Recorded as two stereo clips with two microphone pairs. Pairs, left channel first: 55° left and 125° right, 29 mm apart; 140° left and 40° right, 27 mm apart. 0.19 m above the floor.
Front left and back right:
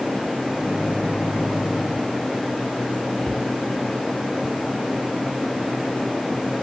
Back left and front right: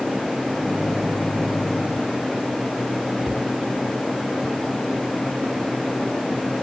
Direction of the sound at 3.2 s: 20° left.